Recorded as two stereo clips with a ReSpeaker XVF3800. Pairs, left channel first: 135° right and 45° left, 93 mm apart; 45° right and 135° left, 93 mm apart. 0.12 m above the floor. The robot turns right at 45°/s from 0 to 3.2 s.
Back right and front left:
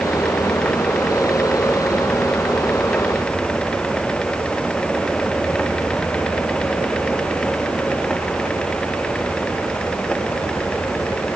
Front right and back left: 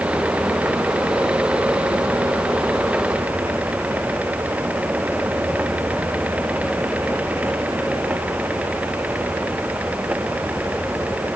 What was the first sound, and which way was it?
Only background noise.